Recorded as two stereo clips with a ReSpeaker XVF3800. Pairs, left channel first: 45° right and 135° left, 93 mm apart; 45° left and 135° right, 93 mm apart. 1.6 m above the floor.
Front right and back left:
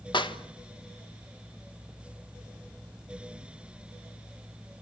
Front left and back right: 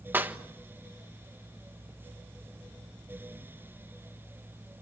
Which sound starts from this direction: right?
A clap, at 0.1 s.